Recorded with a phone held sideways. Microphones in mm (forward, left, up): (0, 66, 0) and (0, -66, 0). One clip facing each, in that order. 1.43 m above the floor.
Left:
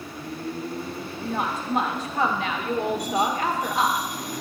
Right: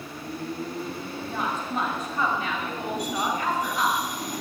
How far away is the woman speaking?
About 1.5 m.